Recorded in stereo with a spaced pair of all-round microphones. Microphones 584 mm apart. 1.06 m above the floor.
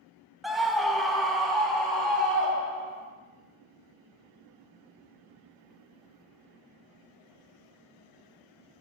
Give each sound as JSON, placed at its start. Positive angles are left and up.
{"t": 0.4, "sound": "a scream", "side_deg": 0, "distance_m": 0.6}